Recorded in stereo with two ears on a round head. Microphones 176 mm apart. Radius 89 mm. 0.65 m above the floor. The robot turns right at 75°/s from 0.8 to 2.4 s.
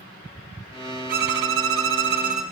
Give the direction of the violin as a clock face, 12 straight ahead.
4 o'clock.